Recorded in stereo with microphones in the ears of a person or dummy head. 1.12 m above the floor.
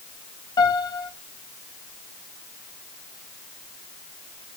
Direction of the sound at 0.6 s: 20° left (ahead or behind).